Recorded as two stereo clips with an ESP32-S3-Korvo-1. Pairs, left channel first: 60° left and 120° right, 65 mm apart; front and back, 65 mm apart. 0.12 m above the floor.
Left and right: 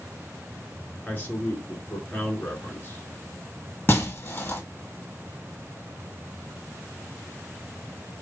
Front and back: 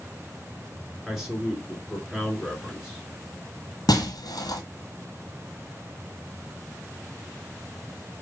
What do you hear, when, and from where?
1.1 s a man speaking: 100° left, 1.9 m
3.9 s breaking glass: 5° left, 1.0 m